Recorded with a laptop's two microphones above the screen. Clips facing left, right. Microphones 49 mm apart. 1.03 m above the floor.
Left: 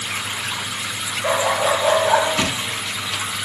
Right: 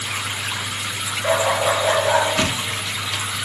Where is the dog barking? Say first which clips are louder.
Even; 20° left (ahead or behind), 6.5 m.